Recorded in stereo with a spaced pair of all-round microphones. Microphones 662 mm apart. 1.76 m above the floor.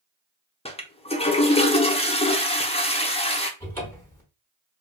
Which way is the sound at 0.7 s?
10° left (ahead or behind).